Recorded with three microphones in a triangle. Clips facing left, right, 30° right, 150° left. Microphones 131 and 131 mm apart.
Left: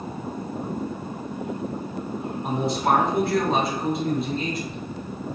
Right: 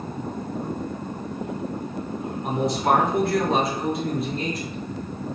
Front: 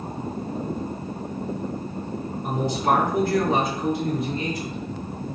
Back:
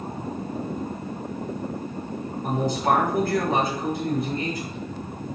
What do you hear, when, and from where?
2.4 s a man speaking: 175° left, 1.7 m